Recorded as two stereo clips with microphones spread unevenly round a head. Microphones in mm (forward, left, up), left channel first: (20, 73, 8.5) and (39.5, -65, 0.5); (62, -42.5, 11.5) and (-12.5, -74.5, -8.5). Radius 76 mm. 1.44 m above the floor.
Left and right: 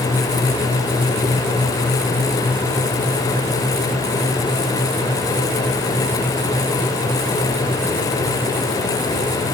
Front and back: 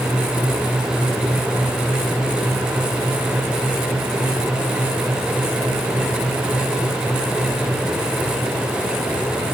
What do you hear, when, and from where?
Only background noise.